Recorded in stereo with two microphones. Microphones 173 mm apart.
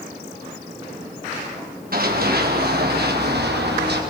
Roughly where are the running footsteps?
Right.